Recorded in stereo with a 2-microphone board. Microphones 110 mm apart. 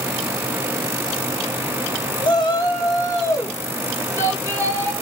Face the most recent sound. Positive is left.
turn(degrees=20)  # may be behind; listen again after turning